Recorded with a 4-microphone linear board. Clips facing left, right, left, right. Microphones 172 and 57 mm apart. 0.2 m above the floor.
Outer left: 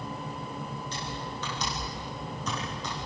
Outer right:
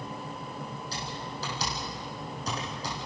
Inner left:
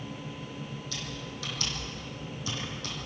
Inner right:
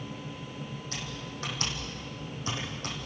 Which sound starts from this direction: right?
Typing on a keyboard, at 0.9 s.